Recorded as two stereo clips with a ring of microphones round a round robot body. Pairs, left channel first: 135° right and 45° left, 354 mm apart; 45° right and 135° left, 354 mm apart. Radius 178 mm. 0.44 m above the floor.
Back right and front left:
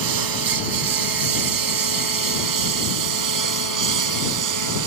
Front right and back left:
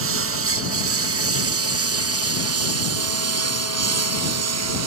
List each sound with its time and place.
0.0 s a lawn mower: 80° left; by 4.9 s 85° left